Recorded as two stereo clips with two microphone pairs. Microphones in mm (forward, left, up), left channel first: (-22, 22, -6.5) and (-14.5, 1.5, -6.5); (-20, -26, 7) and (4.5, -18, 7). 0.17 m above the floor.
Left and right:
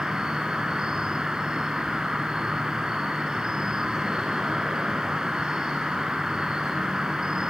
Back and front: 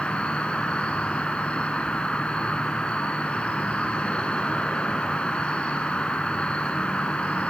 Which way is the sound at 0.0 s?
125° right.